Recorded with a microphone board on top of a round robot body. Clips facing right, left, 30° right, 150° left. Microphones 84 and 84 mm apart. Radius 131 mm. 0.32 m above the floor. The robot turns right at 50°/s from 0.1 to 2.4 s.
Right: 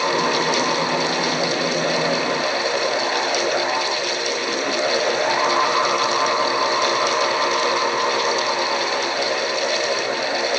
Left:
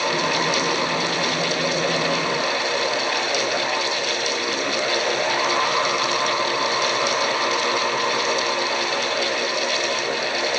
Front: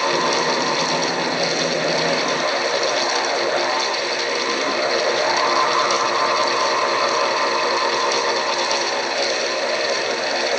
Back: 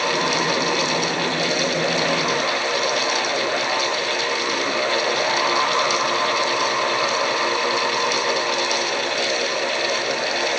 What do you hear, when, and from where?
Only background noise.